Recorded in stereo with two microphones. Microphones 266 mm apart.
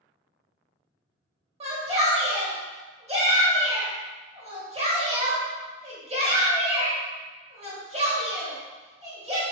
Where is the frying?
I don't hear frying.